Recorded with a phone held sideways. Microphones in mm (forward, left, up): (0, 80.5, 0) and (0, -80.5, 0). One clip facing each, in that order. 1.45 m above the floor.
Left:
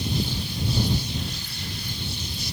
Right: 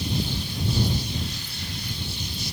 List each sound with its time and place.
Only background noise.